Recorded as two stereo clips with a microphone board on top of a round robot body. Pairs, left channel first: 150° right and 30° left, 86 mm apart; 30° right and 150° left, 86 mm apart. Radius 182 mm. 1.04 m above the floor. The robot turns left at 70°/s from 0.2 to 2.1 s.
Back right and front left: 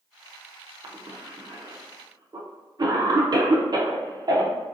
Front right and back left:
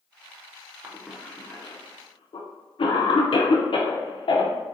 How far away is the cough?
About 0.6 m.